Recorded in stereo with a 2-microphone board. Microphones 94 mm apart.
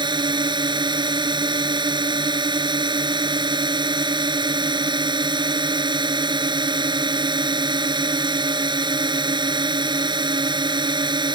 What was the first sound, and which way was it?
A drone, 55° right (ahead or behind).